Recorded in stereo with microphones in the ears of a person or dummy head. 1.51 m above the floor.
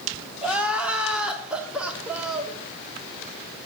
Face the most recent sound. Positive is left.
turn(degrees=-5)  # may be behind; listen again after turning